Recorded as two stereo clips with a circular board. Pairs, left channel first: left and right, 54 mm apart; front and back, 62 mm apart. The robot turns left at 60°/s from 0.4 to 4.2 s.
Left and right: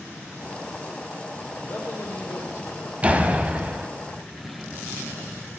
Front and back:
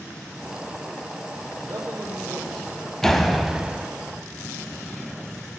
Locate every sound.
1.6 s a man speaking: 140° left, 5.5 m; by 2.9 s 60° left, 5.5 m
3.0 s a door slam: 75° right, 1.1 m; by 3.9 s 125° right, 1.1 m